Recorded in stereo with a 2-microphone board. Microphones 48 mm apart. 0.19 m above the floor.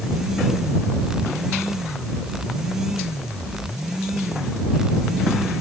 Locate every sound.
Only background noise.